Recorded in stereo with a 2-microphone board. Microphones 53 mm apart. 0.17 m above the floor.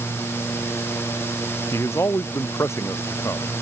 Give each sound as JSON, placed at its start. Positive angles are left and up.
{"t": 1.7, "sound": "a man speaking", "side_deg": 60}